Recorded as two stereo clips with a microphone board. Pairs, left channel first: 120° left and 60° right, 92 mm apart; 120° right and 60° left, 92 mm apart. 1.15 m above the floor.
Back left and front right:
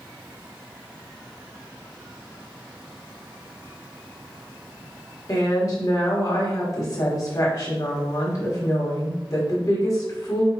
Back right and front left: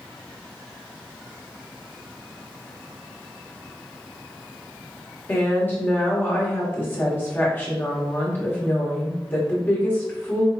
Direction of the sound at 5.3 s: 170° left.